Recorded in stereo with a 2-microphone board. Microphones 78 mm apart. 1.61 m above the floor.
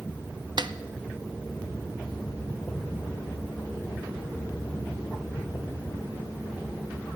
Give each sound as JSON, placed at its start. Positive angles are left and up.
{"t": 0.6, "sound": "a snare drum", "side_deg": -65, "distance_m": 0.5}